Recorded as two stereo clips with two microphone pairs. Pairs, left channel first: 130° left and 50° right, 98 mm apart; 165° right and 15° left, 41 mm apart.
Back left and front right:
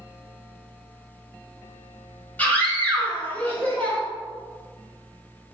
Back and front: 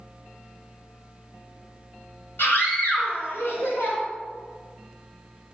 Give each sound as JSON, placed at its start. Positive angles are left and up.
{"t": 2.4, "sound": "a scream", "azimuth_deg": -155, "distance_m": 5.0}